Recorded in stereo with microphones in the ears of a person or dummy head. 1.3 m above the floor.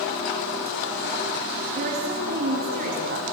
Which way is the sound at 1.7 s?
40° right (ahead or behind).